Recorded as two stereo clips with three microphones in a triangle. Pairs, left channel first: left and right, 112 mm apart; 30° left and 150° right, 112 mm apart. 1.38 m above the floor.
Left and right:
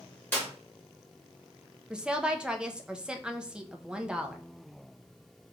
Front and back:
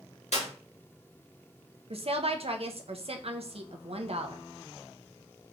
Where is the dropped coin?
No dropped coin in this recording.